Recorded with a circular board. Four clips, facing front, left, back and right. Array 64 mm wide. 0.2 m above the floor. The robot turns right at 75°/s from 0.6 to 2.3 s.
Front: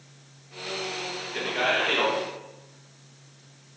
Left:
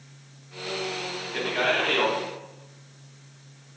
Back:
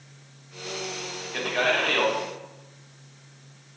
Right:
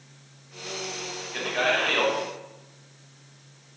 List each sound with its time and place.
1.3 s a man speaking: straight behind, 1.3 m; by 2.1 s 120° right, 1.3 m